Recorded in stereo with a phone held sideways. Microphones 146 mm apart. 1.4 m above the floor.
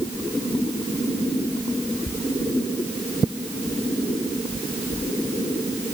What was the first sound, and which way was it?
Only background noise.